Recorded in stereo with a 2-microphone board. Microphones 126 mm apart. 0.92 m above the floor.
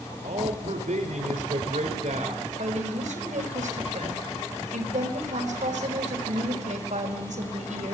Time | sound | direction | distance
0.2 | a man speaking | 85° right | 2.5 m
2.6 | a woman speaking | 75° right (ahead or behind) | 4.5 m